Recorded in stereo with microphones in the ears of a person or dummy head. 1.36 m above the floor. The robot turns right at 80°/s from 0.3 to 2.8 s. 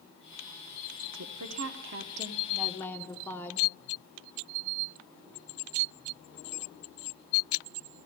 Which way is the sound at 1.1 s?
120° right.